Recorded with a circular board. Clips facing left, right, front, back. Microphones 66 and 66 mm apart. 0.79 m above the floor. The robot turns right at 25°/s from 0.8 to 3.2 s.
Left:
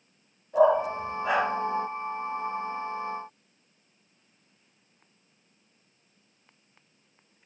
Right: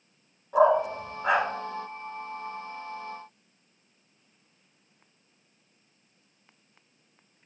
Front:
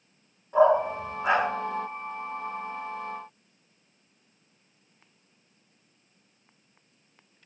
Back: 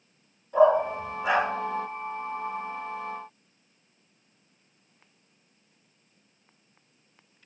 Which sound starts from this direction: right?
A dog barking, at 0.5 s.